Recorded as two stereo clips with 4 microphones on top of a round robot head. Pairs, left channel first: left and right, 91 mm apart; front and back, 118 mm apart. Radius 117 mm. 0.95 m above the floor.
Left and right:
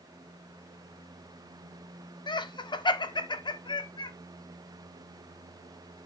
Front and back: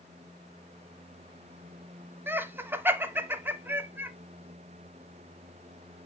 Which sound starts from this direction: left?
Laughter, at 2.3 s.